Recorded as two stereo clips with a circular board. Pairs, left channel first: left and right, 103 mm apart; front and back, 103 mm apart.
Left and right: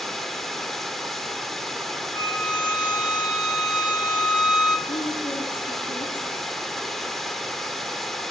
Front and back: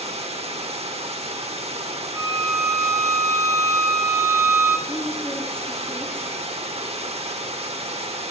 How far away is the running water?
About 0.9 m.